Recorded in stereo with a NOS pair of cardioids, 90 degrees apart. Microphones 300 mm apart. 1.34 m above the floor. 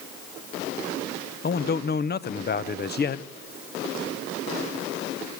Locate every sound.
1.4 s a man speaking: 35° left, 0.9 m